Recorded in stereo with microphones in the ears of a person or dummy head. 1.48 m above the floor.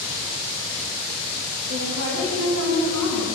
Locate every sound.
1.7 s a woman speaking: 60° right (ahead or behind), 3.5 m; by 3.4 s 80° right, 4 m